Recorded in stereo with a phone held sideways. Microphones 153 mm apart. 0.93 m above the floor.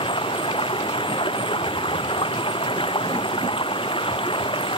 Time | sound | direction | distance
0.0 | running water | 35° left (ahead or behind) | ?